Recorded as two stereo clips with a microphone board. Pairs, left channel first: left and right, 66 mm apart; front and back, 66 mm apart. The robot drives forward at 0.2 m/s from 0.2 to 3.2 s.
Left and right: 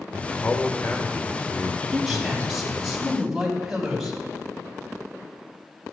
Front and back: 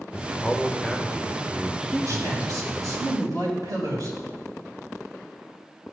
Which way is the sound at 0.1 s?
80° left.